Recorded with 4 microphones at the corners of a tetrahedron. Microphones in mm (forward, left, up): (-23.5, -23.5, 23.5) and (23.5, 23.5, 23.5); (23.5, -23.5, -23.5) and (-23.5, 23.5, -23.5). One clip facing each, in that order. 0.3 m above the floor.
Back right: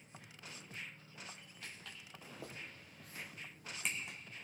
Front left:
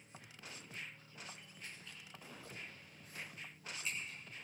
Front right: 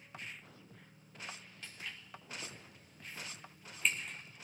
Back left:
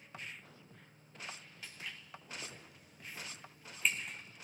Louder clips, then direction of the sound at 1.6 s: Back right 2 dB, even; 140° right.